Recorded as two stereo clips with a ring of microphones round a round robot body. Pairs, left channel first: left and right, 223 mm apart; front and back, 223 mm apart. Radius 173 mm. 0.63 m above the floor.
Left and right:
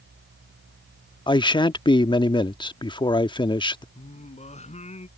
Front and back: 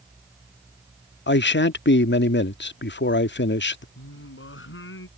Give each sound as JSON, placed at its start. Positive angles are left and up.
{"t": 1.3, "sound": "a man speaking", "azimuth_deg": 25}
{"t": 4.0, "sound": "singing", "azimuth_deg": 30}